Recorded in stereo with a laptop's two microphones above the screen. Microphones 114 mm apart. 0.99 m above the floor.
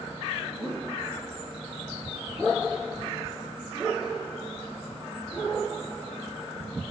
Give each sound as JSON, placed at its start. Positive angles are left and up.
{"t": 0.6, "sound": "a whoosh", "side_deg": -40, "distance_m": 3.0}